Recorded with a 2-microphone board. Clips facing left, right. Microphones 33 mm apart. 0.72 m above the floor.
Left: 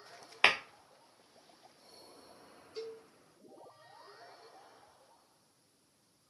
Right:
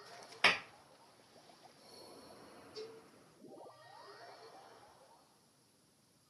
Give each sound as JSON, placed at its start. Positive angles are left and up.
{"t": 0.4, "sound": "tapping", "side_deg": 50, "distance_m": 0.6}
{"t": 2.8, "sound": "a cowbell", "side_deg": 45, "distance_m": 0.6}